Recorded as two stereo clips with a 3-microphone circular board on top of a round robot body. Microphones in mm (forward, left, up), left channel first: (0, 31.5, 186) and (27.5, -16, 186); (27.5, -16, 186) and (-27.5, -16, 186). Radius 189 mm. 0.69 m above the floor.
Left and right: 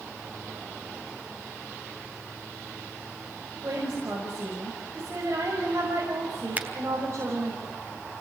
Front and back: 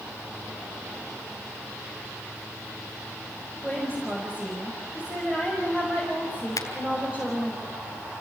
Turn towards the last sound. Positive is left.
turn(degrees=5)